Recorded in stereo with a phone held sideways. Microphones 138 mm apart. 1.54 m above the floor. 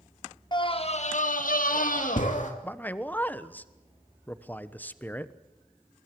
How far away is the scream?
About 1.8 m.